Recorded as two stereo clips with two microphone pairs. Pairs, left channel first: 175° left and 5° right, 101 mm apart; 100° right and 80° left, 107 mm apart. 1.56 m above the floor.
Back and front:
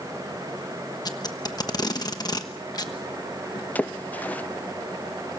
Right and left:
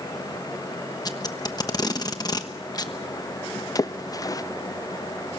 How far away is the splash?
About 0.5 m.